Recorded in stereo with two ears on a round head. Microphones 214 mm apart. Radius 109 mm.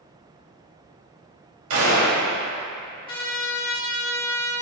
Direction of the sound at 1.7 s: 65° right (ahead or behind).